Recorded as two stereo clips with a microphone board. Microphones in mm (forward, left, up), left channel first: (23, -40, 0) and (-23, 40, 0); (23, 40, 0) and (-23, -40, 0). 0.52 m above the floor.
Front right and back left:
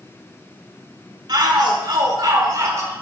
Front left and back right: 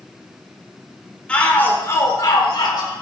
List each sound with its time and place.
1.3 s a shout: 135° left, 1.9 m; by 2.9 s 70° left, 2 m